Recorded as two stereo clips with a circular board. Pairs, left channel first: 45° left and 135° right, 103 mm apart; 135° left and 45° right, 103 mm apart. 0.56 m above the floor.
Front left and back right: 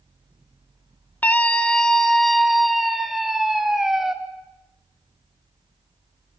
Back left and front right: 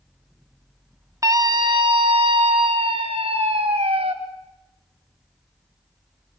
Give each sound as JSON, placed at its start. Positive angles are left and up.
{"t": 1.2, "sound": "a scream", "azimuth_deg": -15, "distance_m": 0.8}